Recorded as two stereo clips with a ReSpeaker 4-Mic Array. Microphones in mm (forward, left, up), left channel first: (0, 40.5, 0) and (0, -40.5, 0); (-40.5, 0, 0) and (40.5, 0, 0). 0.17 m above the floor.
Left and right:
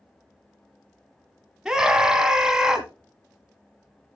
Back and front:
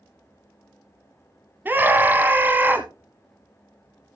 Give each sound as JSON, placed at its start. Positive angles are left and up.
{"t": 1.6, "sound": "a scream", "azimuth_deg": -15, "distance_m": 1.0}